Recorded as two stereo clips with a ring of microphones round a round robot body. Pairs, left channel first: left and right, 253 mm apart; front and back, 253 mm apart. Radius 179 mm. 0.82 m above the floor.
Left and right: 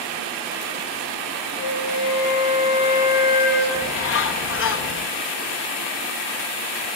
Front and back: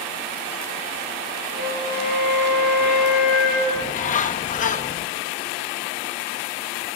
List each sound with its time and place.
1.6 s a flute: 55° left, 4 m
3.8 s a bird: 60° left, 0.8 m